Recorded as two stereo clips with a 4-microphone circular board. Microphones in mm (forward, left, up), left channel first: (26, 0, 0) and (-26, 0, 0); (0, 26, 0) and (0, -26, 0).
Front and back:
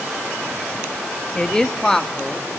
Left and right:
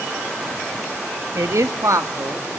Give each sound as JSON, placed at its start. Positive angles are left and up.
{"t": 1.4, "sound": "a man speaking", "azimuth_deg": -75, "distance_m": 1.0}